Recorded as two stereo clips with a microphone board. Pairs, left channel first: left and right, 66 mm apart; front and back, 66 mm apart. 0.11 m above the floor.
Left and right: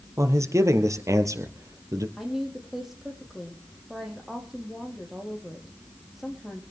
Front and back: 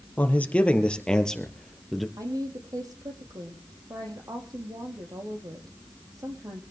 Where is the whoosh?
No whoosh in this recording.